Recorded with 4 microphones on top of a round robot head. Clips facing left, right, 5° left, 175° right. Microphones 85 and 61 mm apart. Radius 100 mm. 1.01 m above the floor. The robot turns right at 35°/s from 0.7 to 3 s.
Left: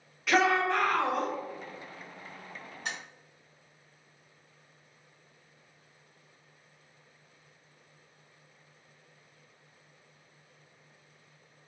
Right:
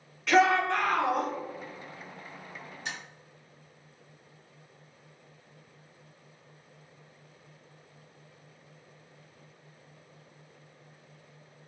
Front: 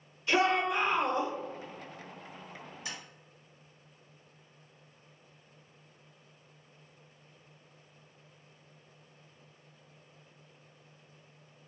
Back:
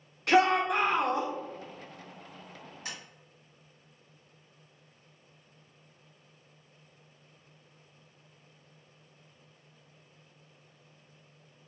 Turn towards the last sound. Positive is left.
turn(degrees=145)